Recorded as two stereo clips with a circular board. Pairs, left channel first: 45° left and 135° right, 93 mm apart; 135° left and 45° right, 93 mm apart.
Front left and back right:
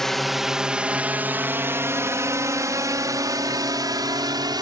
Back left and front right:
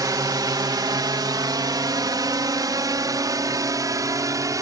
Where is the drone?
40° right; by 4.6 s 95° right.